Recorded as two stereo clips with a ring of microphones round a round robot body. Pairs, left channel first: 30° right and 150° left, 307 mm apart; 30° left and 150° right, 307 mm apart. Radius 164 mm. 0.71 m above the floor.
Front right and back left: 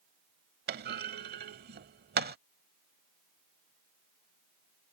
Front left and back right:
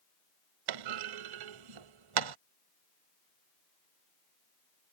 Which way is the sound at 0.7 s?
150° right.